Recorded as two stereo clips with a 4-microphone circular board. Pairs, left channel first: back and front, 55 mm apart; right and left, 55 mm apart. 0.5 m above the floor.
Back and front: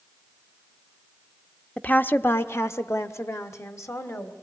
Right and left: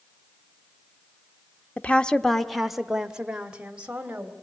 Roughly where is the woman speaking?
Behind right.